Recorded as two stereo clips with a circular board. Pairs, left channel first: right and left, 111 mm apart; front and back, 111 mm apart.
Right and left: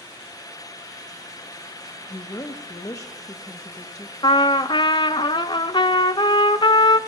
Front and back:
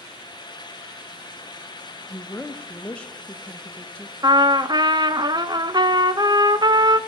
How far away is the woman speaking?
About 1.4 m.